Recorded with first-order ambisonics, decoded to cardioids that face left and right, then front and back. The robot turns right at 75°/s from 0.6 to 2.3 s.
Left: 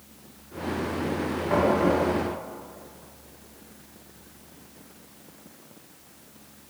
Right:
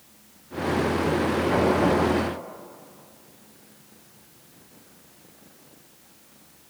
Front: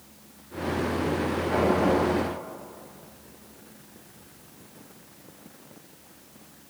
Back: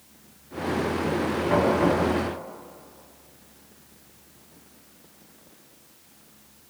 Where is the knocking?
155° left, 4.5 m; by 2.0 s 165° right, 4.5 m.